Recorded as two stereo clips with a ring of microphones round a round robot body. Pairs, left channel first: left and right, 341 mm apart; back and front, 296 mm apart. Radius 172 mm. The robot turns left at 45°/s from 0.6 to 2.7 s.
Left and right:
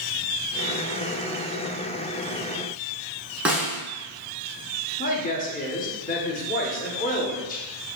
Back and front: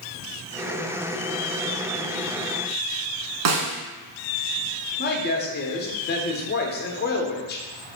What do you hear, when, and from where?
3.5 s a snare drum: 5° right, 1.0 m
5.0 s a woman speaking: 145° left, 0.8 m